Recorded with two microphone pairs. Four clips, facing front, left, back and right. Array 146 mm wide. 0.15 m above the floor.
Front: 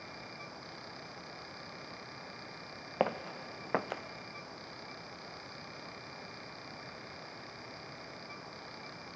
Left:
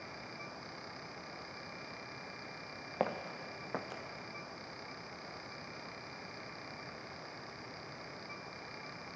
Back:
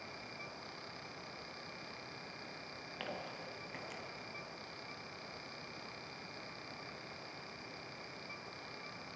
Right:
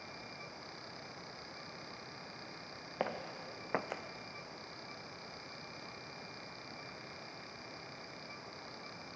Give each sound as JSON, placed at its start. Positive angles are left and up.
{"t": 3.0, "sound": "footsteps", "azimuth_deg": 15, "distance_m": 0.9}